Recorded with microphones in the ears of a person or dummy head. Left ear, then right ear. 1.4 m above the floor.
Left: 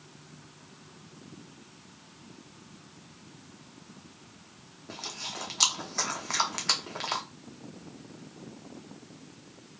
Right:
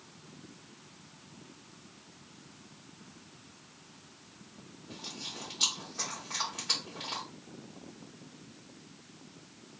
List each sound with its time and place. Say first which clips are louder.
4.9 s chewing: left 4 dB; 65° left (ahead or behind), 0.6 m